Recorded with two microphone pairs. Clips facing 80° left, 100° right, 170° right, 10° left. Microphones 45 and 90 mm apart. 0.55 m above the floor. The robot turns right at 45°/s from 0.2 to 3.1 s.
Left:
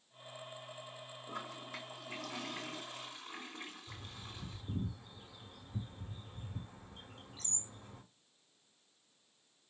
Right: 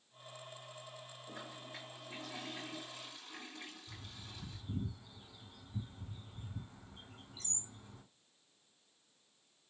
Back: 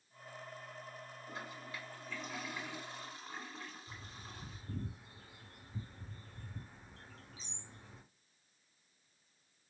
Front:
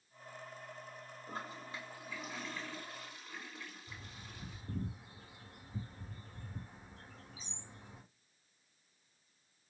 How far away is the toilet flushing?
About 1.8 m.